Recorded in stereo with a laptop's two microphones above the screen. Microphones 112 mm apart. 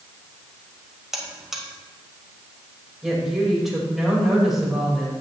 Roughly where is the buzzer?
Centre.